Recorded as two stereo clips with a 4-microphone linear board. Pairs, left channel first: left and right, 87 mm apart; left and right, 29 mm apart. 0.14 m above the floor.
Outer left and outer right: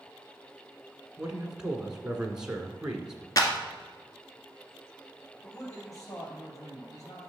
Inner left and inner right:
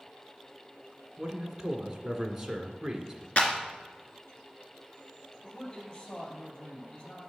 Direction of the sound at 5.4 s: 40° left (ahead or behind).